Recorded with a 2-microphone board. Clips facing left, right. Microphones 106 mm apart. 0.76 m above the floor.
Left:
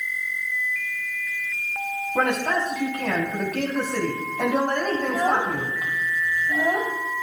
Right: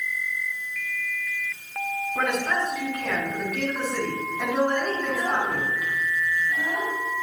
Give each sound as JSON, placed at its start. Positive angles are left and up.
{"t": 2.1, "sound": "a man speaking", "side_deg": 65, "distance_m": 7.0}
{"t": 5.0, "sound": "a child speaking", "side_deg": 60, "distance_m": 3.0}